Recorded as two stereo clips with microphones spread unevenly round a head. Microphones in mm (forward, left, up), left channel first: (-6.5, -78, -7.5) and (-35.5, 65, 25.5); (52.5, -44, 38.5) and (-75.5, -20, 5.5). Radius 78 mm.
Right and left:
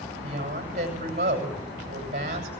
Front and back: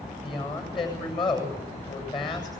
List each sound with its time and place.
0.2 s a woman speaking: 50° left, 7.5 m